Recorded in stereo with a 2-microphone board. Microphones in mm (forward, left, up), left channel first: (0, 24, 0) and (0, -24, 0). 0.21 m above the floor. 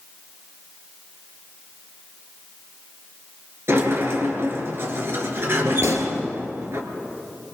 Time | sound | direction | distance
3.7 | a sliding door | 55° right (ahead or behind) | 3 m
5.8 | a gunshot | 75° right (ahead or behind) | 2.5 m